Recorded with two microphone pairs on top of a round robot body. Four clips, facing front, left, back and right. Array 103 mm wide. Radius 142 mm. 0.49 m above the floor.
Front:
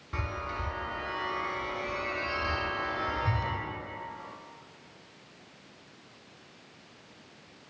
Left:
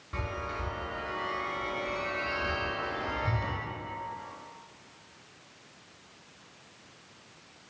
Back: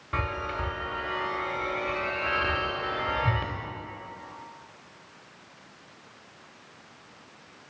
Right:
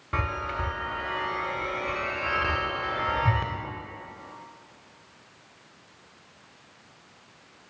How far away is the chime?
About 0.6 m.